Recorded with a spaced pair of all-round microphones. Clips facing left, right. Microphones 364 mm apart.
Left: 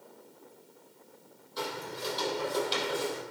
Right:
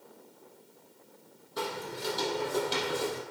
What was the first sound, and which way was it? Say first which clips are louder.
Footsteps: right 1 dB; 65° right (ahead or behind).